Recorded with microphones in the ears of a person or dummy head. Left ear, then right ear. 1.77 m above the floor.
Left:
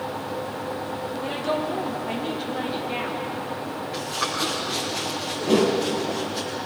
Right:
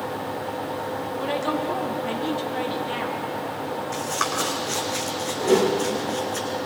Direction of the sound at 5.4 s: 60° right (ahead or behind).